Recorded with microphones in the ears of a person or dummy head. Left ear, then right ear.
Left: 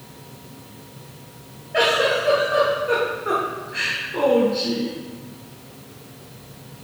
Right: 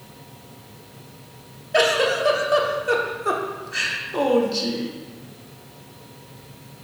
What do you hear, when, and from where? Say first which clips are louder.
1.7 s a giggle: even; 80° right, 1.0 m